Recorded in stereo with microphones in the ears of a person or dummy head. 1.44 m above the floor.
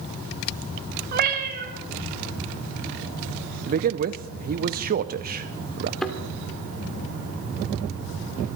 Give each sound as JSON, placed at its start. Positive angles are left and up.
{"t": 1.1, "sound": "a cat meowing", "side_deg": -45, "distance_m": 2.5}
{"t": 3.7, "sound": "a man speaking", "side_deg": -50, "distance_m": 0.6}
{"t": 6.0, "sound": "a thud", "side_deg": 10, "distance_m": 1.9}